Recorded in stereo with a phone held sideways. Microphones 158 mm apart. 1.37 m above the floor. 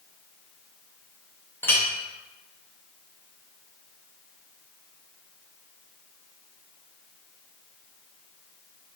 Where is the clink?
15° left (ahead or behind), 0.8 m.